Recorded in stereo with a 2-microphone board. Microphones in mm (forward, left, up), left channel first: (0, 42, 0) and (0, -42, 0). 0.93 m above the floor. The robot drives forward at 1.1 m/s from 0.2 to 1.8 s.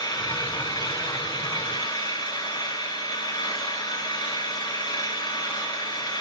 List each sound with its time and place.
0.0 s an engine running: 70° left (ahead or behind), 8.5 m; by 6.2 s 80° left, 8 m